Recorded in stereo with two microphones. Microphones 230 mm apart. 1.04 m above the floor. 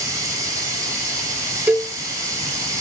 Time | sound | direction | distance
0.0 | running water | 15° right (ahead or behind) | 2.5 m
1.7 | a cowbell | 5° right (ahead or behind) | 0.6 m